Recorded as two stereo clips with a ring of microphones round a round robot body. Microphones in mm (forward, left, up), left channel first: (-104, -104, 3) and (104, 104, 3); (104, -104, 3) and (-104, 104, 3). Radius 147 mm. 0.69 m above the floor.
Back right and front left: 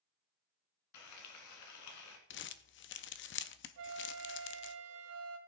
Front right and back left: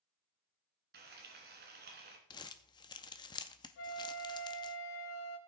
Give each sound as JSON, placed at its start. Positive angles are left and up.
{"t": 0.9, "sound": "frying", "azimuth_deg": -165, "distance_m": 2.0}
{"t": 2.3, "sound": "crumpling", "azimuth_deg": -115, "distance_m": 0.5}
{"t": 3.8, "sound": "a flute", "azimuth_deg": 0, "distance_m": 1.1}